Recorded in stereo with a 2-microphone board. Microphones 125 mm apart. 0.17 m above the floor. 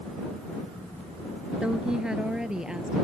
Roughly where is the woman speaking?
Centre.